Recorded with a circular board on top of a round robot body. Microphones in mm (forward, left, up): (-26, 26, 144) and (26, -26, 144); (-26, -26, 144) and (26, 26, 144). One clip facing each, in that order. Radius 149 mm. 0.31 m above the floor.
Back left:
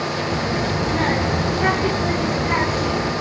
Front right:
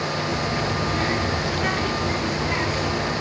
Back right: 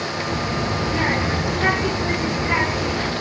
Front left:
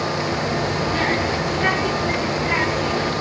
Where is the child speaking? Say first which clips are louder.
Back left 2 dB, front left 1 dB; 150° left, 1.3 m.